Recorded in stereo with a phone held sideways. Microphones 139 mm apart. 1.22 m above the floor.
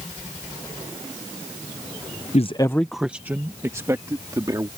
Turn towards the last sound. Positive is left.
turn(degrees=-25)  # may be behind; listen again after turning